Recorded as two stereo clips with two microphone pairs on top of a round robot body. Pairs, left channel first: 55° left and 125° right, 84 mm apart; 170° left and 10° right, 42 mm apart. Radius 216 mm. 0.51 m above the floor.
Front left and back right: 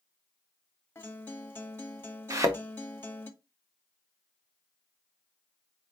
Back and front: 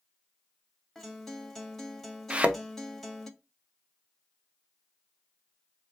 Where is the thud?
70° right, 0.7 m.